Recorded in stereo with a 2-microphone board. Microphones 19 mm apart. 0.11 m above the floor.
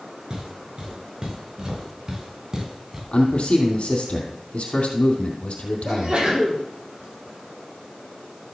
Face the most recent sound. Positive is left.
turn(degrees=-60)  # may be behind; listen again after turning